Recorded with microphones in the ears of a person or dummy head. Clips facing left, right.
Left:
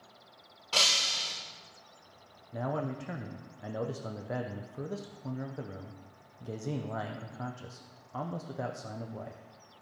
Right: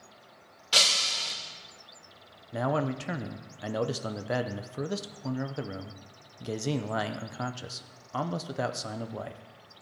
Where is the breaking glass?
25° right (ahead or behind), 3 m.